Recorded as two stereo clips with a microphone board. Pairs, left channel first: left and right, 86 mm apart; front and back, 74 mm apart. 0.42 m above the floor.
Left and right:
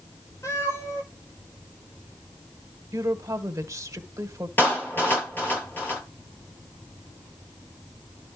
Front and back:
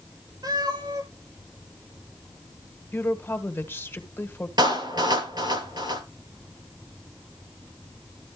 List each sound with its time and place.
0.4 s a cat meowing: 145° left, 8.5 m
2.9 s a woman speaking: 50° right, 1.6 m
4.6 s a clap: 155° left, 9 m